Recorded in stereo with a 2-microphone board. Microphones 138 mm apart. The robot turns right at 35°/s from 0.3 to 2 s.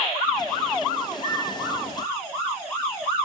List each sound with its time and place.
1.1 s a microwave: 65° left (ahead or behind), 3 m